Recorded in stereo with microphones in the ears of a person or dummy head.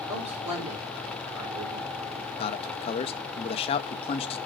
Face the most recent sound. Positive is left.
turn(degrees=30)  # may be behind; listen again after turning